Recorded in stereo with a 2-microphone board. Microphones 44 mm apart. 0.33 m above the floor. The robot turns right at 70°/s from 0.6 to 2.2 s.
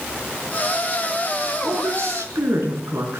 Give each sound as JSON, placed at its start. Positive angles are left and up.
{"t": 1.6, "sound": "a woman speaking", "azimuth_deg": -130, "distance_m": 4.0}